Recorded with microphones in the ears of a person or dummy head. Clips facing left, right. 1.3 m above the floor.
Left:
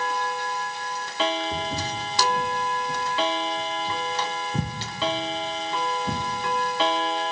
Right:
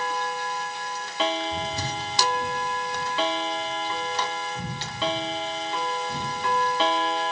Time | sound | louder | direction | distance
1.5 | footsteps | left 1 dB | 40° left (ahead or behind) | 8.5 m